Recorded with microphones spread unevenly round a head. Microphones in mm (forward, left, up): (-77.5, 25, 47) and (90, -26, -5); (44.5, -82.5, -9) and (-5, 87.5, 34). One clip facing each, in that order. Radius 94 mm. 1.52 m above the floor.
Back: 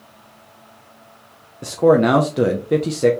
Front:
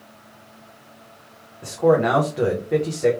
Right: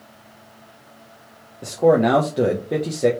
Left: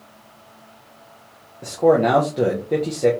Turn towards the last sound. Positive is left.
turn(degrees=-150)